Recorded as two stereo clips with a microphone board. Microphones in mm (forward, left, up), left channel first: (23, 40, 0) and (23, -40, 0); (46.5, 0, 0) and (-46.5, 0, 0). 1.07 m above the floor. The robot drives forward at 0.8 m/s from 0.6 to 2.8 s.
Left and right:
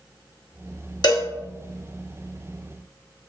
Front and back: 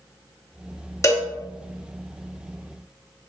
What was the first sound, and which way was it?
A cowbell, 55° left.